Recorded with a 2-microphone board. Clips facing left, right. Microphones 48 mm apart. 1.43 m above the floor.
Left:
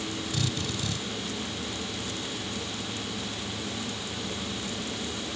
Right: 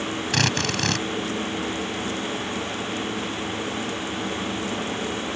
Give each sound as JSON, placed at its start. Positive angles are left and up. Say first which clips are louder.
{"t": 0.3, "sound": "a drill", "louder": "right 11 dB", "side_deg": -70}